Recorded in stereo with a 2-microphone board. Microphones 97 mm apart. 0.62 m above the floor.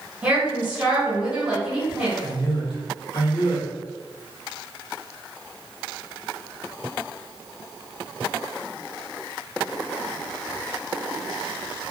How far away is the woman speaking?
About 1.0 m.